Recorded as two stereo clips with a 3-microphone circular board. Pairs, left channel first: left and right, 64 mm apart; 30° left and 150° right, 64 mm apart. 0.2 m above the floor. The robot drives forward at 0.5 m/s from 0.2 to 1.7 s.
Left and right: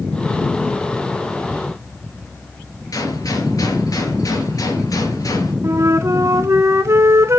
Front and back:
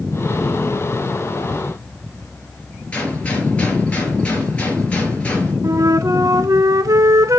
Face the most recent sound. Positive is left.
turn(degrees=-130)